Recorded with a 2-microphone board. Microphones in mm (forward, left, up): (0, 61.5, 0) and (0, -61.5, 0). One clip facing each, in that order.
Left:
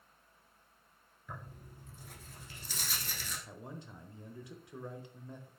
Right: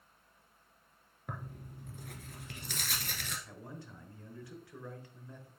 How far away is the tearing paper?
About 1.3 m.